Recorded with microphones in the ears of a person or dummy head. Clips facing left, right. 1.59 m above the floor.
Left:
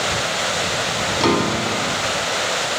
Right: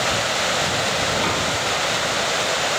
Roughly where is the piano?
Left.